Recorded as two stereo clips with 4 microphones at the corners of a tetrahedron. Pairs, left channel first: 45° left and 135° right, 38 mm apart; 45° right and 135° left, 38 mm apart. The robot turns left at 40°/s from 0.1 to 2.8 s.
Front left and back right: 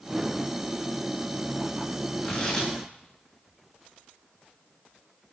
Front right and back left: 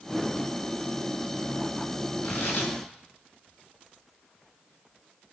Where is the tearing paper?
15° right, 7 m; by 2.7 s 35° right, 7 m.